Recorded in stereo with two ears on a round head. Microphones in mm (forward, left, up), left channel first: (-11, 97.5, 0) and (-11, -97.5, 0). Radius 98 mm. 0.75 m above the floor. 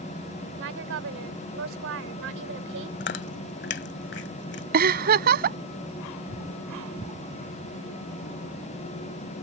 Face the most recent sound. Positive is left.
turn(degrees=-45)  # may be behind; listen again after turning